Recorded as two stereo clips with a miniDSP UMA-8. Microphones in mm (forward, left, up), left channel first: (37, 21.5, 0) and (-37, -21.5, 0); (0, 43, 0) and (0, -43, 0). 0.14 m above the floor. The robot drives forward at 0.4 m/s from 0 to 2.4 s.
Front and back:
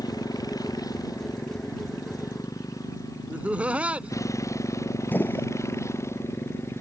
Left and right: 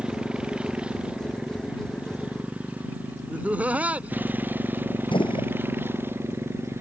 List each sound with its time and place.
0.0 s a motorcycle: 10° right; by 6.8 s 30° right
3.3 s laughter: 115° right
5.1 s a gunshot: 100° left